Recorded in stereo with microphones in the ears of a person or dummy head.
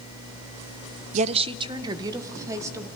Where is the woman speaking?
40° right (ahead or behind), 0.5 m; by 2.9 s 15° right (ahead or behind), 2 m.